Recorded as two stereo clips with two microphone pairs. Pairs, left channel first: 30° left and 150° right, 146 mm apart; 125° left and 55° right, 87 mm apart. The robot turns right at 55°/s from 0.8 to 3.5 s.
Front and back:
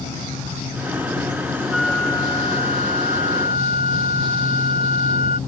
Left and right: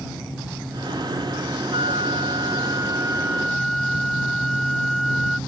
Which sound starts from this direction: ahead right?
A flute, at 1.7 s.